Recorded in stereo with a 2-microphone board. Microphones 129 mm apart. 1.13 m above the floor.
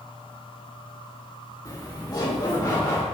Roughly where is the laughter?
Left.